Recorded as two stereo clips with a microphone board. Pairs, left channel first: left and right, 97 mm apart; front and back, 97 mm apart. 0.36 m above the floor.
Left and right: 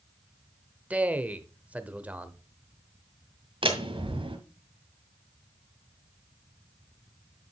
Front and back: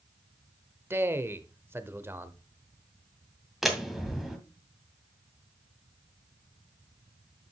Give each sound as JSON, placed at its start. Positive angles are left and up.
{"t": 0.9, "sound": "a man speaking", "azimuth_deg": -150, "distance_m": 0.9}
{"t": 3.6, "sound": "a door slam", "azimuth_deg": -95, "distance_m": 1.9}